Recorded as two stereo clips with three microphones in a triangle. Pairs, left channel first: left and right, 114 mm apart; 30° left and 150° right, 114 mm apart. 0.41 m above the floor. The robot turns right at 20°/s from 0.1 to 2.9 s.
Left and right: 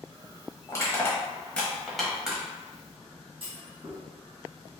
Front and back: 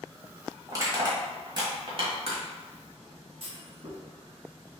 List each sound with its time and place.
0.7 s crushing: 150° left, 1.2 m; by 2.4 s 175° right, 1.2 m
3.4 s a clunk: 130° right, 1.5 m